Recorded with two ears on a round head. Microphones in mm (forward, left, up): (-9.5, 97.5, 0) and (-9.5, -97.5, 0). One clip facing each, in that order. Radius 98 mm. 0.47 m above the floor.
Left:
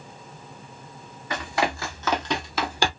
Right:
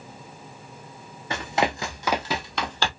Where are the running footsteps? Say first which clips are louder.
Right 1 dB; 25° right (ahead or behind), 1.3 m; by 2.9 s 15° left (ahead or behind), 0.8 m.